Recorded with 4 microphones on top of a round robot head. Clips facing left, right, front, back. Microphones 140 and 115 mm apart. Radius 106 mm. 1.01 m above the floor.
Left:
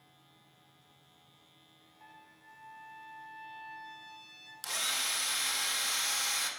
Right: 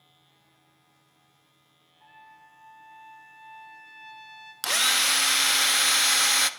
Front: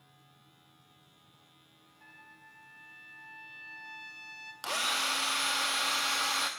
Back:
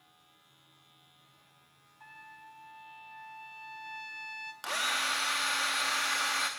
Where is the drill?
75° right, 0.7 m.